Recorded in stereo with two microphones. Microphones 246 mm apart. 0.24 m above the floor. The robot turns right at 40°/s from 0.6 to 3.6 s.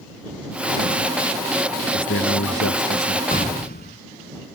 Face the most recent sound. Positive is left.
turn(degrees=40)  # may be behind; listen again after turning